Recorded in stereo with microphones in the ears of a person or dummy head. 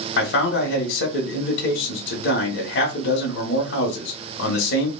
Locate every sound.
0.2 s a man speaking: 75° left (ahead or behind), 1.2 m